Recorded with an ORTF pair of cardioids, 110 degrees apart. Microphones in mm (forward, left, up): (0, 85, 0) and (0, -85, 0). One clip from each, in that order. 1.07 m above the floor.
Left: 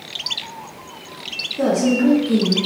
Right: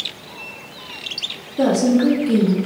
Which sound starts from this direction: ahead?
A woman speaking, at 1.6 s.